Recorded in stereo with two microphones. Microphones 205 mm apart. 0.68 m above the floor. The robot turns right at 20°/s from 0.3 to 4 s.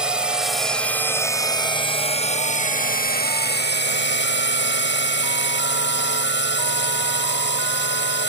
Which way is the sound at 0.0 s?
5° right.